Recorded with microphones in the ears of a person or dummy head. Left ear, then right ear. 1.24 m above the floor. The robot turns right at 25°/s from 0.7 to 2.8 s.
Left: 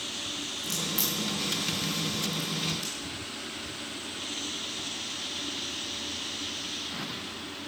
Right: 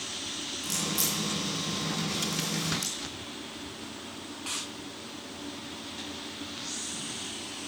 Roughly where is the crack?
Centre.